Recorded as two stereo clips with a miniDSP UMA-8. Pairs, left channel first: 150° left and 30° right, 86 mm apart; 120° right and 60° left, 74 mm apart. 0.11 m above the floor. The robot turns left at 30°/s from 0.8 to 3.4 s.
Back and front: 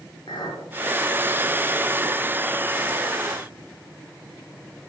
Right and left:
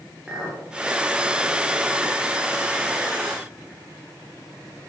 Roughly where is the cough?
No cough in this recording.